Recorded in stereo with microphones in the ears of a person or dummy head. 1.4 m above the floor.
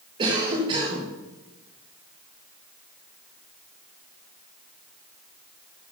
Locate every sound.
0.2 s a cough: 25° right (ahead or behind), 1.5 m